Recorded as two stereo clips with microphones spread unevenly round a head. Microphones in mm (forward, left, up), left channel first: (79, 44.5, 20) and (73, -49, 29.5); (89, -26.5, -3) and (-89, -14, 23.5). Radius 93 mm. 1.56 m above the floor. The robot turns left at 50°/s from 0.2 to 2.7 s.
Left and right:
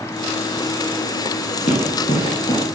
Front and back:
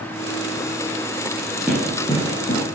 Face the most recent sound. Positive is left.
turn(degrees=40)